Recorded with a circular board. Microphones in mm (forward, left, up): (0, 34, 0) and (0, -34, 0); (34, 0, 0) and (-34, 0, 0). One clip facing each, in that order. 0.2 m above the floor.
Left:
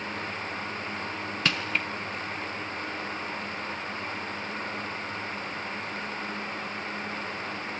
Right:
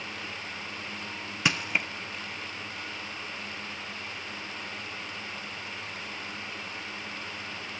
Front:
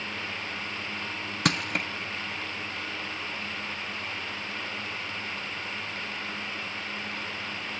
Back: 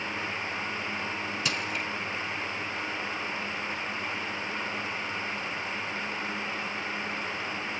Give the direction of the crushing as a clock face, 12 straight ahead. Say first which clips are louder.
Right 1 dB, front 7 dB; 12 o'clock.